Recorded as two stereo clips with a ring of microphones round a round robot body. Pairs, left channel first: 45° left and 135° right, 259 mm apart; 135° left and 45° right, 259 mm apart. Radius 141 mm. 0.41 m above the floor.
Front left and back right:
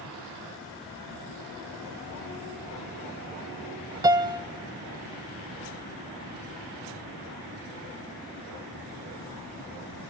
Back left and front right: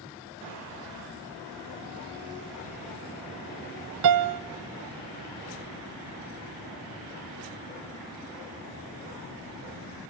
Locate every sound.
4.0 s a piano: 60° right, 0.6 m